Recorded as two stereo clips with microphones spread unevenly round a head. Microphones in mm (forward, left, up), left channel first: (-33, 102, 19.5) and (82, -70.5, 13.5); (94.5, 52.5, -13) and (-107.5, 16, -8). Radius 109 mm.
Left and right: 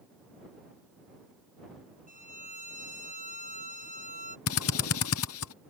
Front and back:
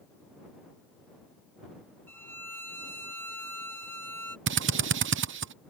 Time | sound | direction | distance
2.1 | a violin | 90° left | ?
4.5 | a drill | 155° left | ?